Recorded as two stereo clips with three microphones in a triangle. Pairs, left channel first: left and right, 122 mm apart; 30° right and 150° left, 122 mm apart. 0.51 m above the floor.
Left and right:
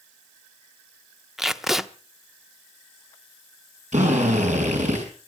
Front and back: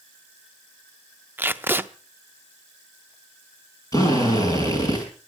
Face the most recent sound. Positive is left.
turn(degrees=-90)